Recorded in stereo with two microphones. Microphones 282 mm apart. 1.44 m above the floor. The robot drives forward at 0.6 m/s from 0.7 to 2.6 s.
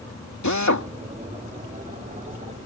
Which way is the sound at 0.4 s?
80° left.